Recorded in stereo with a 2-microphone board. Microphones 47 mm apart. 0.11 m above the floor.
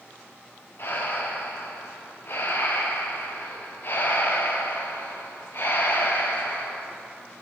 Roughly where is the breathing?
Left.